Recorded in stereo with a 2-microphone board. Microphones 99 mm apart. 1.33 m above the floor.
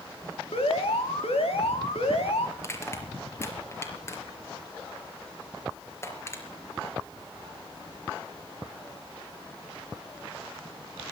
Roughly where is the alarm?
Left.